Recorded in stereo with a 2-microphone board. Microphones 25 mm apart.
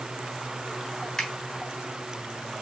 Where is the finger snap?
20° left (ahead or behind), 3 m.